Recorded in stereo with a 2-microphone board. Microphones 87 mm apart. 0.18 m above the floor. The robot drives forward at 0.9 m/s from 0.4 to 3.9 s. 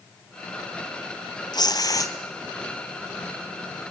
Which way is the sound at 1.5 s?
55° left (ahead or behind).